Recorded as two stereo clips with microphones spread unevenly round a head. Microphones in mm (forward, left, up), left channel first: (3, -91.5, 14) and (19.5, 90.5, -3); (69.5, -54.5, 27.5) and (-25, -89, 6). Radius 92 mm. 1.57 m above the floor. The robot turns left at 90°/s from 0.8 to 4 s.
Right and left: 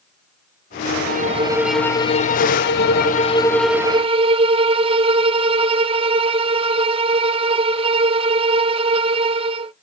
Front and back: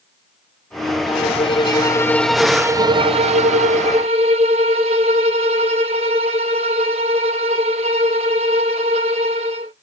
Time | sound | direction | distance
1.1 | a violin | 50° left | 0.6 m